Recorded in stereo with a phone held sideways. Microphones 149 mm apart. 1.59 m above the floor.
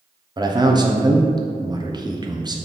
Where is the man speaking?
30° right (ahead or behind), 0.8 m.